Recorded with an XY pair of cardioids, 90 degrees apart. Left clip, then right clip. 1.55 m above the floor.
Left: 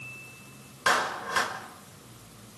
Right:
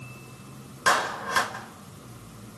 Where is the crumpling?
No crumpling in this recording.